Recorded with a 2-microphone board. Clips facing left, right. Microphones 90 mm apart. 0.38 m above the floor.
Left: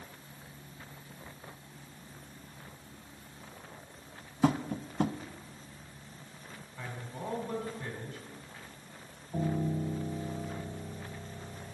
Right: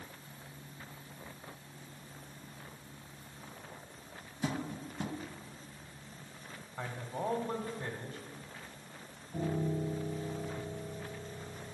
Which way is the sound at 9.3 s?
30° left (ahead or behind).